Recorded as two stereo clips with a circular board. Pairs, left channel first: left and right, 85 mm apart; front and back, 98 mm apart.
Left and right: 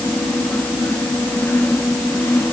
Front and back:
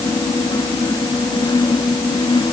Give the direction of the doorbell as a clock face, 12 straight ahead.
I don't hear a doorbell.